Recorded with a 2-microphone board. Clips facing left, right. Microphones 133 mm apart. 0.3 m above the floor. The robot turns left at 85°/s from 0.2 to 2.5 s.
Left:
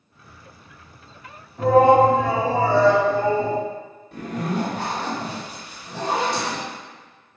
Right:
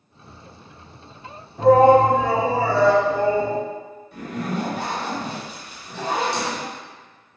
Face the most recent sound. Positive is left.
turn(degrees=60)  # may be behind; listen again after turning